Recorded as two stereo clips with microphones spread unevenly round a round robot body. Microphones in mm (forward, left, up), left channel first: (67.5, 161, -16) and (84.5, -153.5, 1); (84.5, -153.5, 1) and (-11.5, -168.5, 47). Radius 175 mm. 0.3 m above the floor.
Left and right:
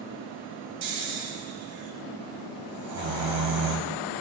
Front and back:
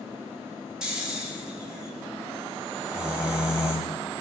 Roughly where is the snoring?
Right.